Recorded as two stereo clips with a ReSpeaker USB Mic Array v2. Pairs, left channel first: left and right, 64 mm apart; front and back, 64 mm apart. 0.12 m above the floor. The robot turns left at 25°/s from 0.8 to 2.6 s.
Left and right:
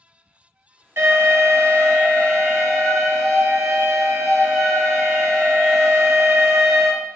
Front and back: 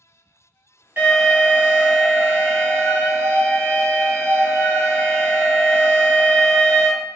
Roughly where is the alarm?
Behind right.